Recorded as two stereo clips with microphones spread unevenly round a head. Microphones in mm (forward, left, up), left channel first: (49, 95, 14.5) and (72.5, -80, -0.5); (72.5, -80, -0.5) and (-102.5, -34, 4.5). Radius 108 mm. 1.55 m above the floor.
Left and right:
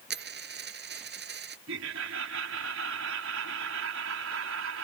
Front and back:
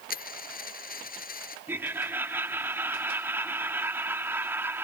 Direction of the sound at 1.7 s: 115° right.